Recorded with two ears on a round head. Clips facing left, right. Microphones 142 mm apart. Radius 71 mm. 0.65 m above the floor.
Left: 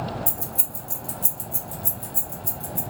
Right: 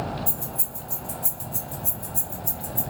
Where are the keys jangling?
25° left (ahead or behind), 0.8 m; by 2.8 s 15° left (ahead or behind), 1.4 m.